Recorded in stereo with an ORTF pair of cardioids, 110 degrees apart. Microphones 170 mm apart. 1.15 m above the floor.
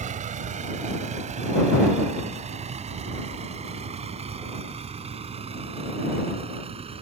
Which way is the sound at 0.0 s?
45° right.